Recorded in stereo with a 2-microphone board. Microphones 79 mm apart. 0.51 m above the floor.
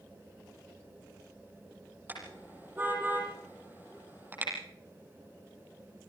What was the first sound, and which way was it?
A car horn, 25° right (ahead or behind).